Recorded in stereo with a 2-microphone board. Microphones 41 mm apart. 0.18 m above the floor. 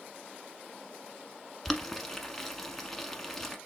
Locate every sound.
1.6 s boiling: 5° left (ahead or behind), 1.0 m